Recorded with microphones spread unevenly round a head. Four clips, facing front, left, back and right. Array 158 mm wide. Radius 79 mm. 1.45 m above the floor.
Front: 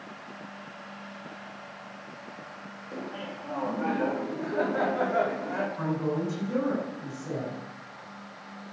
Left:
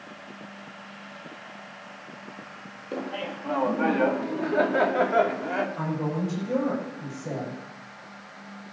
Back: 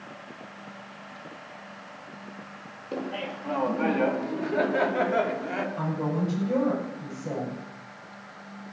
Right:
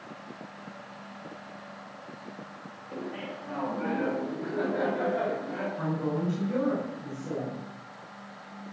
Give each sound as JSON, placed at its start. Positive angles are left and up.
{"t": 2.9, "sound": "laughter", "azimuth_deg": 135, "distance_m": 2.5}
{"t": 5.8, "sound": "a woman speaking", "azimuth_deg": 135, "distance_m": 8.0}